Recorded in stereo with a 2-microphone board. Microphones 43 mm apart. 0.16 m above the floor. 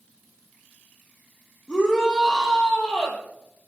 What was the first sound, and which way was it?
A shout, 25° left (ahead or behind).